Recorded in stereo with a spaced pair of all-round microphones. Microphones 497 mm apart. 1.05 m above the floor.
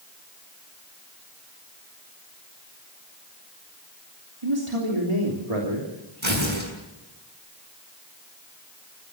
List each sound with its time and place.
4.4 s a man speaking: 75° right (ahead or behind), 3 m
6.2 s tearing paper: 65° right (ahead or behind), 6 m